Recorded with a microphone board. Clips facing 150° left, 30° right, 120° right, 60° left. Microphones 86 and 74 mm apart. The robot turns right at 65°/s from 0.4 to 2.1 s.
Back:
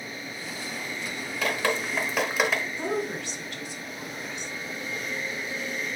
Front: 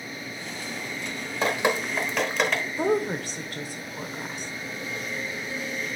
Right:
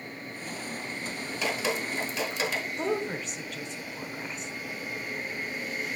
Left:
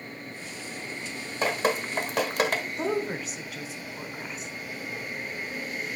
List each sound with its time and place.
1.4 s dripping: 20° left, 1.1 m; by 2.6 s 65° left, 1.1 m
2.8 s a woman speaking: 25° right, 1.1 m